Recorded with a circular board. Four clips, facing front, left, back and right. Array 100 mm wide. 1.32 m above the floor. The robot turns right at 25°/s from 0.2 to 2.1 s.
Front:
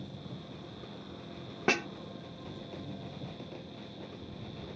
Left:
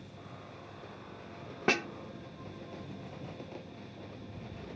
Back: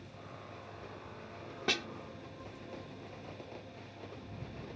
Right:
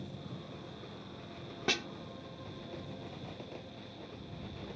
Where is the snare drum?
40° left; by 1.9 s 45° left.